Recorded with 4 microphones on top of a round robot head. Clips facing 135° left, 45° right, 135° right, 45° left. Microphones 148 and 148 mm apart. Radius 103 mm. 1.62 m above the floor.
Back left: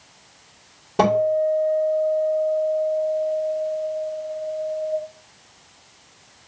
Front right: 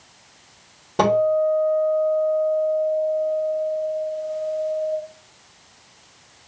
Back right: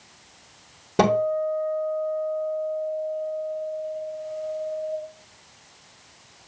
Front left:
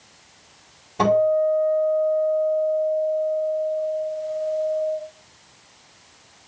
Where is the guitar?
140° right, 4 m.